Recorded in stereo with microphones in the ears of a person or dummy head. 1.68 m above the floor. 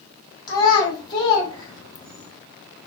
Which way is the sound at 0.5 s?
25° left (ahead or behind).